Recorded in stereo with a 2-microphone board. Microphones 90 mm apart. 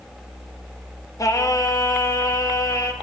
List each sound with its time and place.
1.2 s singing: 40° left (ahead or behind), 1.0 m